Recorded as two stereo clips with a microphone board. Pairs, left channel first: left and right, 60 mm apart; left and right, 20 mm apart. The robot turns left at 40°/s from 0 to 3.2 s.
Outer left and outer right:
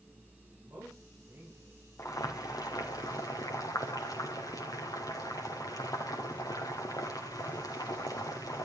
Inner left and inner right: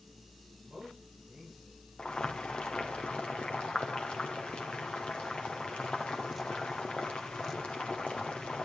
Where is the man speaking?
115° right, 10 m; by 1.7 s 160° right, 10 m.